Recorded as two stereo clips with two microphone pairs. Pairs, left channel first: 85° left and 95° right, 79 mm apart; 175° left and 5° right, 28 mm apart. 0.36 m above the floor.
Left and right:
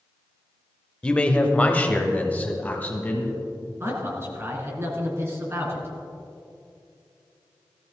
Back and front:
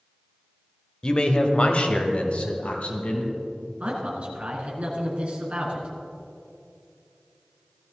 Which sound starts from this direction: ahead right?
A man speaking, at 3.8 s.